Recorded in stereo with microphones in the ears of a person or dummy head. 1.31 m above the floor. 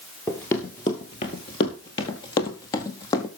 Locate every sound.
0.3 s running footsteps: 10° left (ahead or behind), 1.5 m; by 3.3 s 25° left (ahead or behind), 1.9 m